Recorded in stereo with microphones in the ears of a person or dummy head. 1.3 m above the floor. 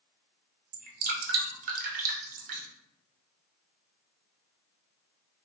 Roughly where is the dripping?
Right.